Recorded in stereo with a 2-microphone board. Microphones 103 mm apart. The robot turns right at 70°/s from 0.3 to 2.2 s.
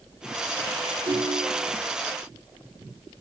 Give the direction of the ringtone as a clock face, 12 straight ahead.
5 o'clock.